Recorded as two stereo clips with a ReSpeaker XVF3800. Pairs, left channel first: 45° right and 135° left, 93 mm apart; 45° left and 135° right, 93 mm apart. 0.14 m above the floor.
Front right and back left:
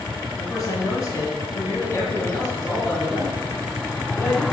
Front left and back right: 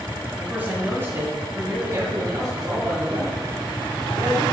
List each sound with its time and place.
0.4 s a man speaking: 65° right, 2 m; by 4.4 s 115° right, 4 m